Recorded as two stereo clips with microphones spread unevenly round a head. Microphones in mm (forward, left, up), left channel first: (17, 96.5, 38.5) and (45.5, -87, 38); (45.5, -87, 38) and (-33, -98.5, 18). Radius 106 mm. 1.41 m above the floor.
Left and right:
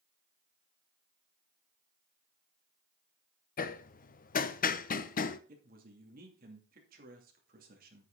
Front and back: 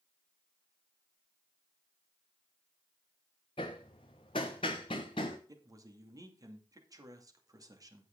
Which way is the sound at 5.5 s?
130° right.